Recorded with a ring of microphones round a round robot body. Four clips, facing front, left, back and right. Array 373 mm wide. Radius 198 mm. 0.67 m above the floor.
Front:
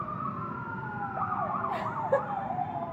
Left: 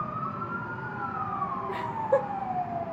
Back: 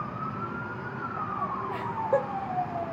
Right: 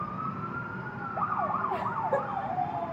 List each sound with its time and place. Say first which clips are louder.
1.7 s laughter: left 2 dB, back 3 dB; 50° left, 1.7 m; by 2.8 s straight ahead, 1.2 m